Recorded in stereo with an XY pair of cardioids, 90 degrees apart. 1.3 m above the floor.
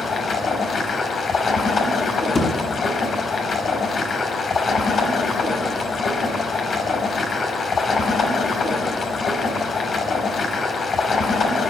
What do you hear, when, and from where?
0.0 s running water: 50° left, 4.5 m
2.4 s a thud: 35° left, 6.5 m